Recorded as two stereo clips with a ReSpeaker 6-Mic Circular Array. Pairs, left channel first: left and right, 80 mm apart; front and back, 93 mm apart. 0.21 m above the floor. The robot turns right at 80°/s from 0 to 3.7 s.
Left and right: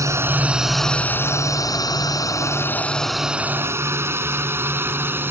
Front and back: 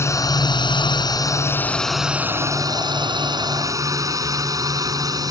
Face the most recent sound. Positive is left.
turn(degrees=-145)